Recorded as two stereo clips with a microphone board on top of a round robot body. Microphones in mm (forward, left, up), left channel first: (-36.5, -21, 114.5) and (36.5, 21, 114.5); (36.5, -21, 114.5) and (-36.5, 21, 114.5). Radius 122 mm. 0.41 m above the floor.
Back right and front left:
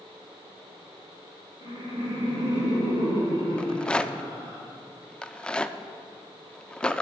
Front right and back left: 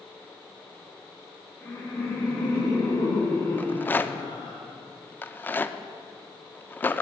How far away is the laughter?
About 4 m.